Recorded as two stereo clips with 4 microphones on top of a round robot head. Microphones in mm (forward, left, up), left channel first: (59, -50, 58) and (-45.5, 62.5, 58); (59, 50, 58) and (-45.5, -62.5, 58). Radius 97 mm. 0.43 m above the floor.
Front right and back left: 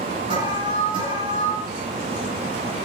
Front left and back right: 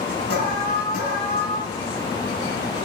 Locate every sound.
0.3 s an alarm: 70° left, 6.5 m